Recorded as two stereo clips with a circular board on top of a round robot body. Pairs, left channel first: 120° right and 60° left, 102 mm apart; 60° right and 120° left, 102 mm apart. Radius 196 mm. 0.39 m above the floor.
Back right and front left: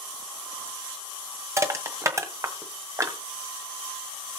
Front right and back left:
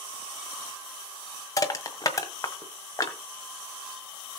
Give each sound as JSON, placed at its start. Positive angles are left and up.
{"t": 1.6, "sound": "crushing", "azimuth_deg": -5, "distance_m": 1.7}